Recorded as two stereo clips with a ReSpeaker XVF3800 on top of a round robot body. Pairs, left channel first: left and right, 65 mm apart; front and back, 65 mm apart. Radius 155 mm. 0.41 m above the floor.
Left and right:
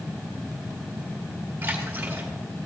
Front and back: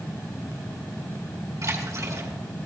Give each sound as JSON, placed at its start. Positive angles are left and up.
{"t": 1.6, "sound": "a splash", "azimuth_deg": -150, "distance_m": 3.5}